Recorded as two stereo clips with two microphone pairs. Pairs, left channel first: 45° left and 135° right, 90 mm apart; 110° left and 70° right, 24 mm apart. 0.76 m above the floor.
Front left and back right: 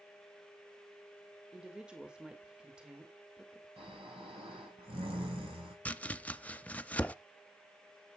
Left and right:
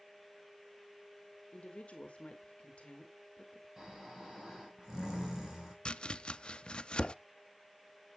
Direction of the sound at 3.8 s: 135° right.